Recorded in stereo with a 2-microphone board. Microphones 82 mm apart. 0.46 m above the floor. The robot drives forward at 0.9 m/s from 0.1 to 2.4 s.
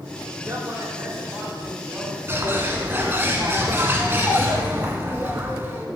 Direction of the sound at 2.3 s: 30° right (ahead or behind).